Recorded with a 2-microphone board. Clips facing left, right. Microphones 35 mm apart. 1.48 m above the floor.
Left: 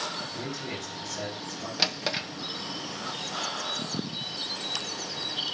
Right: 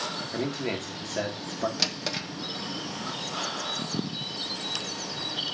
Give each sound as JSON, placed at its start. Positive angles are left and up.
{"t": 0.3, "sound": "a man speaking", "side_deg": -55, "distance_m": 2.0}
{"t": 1.8, "sound": "a drawer", "side_deg": 15, "distance_m": 0.6}